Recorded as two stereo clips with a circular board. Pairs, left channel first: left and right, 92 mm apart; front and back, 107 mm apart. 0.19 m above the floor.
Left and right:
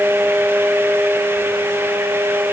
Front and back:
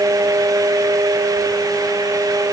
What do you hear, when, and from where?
Only background noise.